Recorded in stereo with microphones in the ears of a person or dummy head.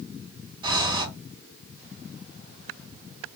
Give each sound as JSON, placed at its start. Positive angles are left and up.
{"t": 0.6, "sound": "breathing", "side_deg": -30, "distance_m": 1.3}